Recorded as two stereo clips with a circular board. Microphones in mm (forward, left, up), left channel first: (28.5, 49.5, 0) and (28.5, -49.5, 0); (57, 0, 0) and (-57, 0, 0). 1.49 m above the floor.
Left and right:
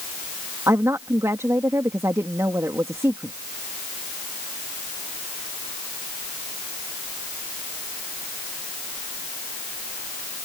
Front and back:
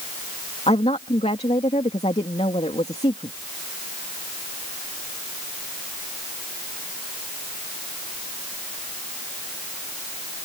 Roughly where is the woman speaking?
Ahead right.